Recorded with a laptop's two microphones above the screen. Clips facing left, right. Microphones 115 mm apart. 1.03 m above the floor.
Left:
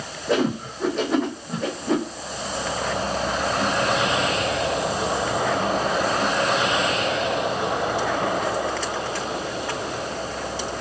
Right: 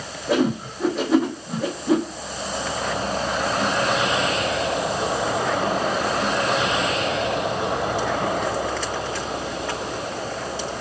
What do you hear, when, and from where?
0.3 s a whoosh: 5° right (ahead or behind), 0.8 m